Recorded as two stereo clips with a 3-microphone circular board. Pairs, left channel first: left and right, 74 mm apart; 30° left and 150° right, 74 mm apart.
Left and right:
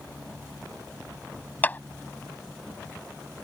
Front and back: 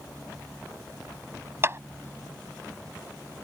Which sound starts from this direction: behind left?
A clap, at 1.6 s.